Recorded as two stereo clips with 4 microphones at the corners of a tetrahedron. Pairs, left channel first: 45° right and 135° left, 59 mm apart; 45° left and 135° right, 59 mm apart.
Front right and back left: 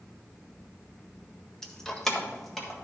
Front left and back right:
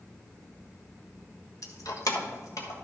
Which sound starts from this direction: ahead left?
Keys jangling, at 1.6 s.